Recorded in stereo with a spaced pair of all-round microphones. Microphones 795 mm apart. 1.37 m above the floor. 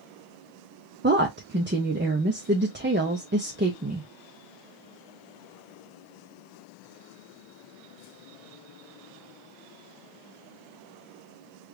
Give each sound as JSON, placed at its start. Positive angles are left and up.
{"t": 1.0, "sound": "a woman speaking", "side_deg": -15, "distance_m": 0.5}